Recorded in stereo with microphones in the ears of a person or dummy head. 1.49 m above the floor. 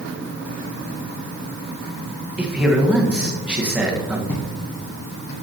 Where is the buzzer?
No buzzer in this recording.